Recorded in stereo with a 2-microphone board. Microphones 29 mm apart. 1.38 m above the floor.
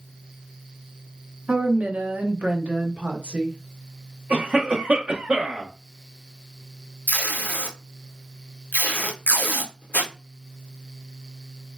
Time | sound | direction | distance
1.5 | a woman speaking | 50° right (ahead or behind) | 0.9 m
4.3 | a cough | 55° right (ahead or behind) | 0.8 m
7.1 | tape being pulled | 80° left | 0.8 m